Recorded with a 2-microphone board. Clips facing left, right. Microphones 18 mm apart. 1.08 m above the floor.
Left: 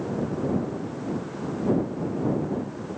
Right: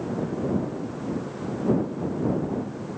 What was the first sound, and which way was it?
Only background noise.